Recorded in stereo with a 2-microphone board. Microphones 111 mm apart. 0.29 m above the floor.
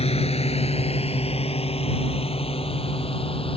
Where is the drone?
75° left (ahead or behind); by 3.6 s 65° left (ahead or behind).